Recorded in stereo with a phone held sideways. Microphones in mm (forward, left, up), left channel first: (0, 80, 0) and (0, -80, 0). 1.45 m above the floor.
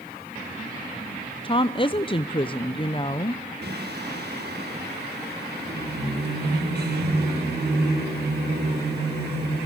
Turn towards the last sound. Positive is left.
turn(degrees=-75)  # may be behind; listen again after turning